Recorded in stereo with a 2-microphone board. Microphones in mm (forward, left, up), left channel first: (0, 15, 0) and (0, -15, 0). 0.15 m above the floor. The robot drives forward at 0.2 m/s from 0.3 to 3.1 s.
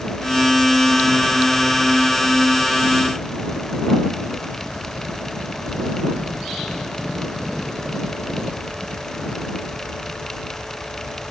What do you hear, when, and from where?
Only background noise.